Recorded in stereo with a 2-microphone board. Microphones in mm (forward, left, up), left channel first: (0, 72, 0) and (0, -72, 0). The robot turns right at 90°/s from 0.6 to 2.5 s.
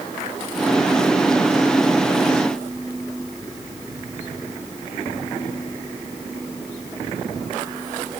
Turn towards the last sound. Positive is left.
No sound to turn to.